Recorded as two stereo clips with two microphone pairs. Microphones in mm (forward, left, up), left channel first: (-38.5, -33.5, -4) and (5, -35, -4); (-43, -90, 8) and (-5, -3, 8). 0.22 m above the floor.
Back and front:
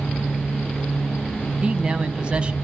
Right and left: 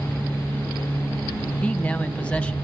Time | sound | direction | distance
1.6 | a man speaking | 50° right | 1.3 m